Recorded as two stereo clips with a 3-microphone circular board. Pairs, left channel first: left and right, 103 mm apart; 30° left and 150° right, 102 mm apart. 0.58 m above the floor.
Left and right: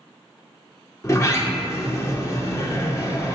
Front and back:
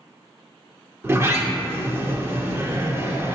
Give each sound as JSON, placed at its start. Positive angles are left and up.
{"t": 1.0, "sound": "a sliding door", "azimuth_deg": 150, "distance_m": 0.8}